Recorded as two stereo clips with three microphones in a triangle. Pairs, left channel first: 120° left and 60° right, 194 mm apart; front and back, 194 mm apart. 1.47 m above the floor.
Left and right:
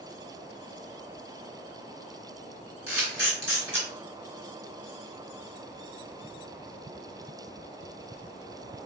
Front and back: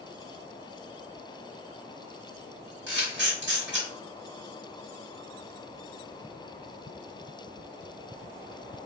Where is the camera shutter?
Straight behind, 1.7 m.